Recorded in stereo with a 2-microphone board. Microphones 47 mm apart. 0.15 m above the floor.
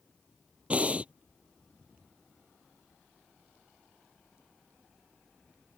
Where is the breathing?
30° right (ahead or behind).